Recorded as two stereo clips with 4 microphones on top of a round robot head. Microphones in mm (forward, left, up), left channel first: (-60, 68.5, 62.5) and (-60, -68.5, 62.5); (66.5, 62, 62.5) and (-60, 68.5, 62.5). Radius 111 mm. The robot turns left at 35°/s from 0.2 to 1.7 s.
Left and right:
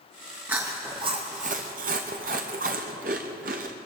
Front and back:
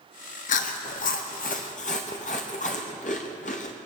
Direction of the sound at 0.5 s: 10° right.